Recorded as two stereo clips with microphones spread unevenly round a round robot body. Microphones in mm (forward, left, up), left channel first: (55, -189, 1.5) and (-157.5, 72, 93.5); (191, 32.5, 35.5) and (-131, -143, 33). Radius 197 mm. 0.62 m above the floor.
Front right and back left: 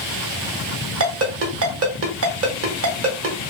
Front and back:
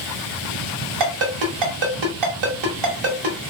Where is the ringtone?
Straight behind, 1.0 m.